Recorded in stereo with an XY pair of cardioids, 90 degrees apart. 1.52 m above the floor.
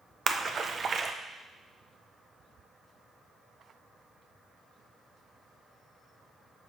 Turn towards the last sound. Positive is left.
turn(degrees=-50)